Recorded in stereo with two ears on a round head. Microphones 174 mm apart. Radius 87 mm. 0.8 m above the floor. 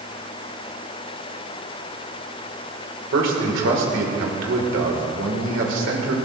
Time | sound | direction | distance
3.1 | a man speaking | 65° right (ahead or behind) | 2 m